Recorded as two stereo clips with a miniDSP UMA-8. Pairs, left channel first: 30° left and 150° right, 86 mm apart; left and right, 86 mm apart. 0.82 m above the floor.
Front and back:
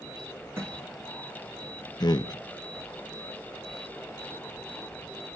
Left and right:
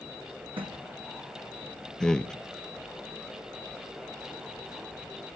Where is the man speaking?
10° left, 0.8 m.